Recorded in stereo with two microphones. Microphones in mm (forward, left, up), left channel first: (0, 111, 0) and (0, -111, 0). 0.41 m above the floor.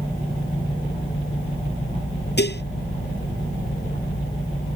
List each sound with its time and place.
2.4 s dishes clattering: 50° left (ahead or behind)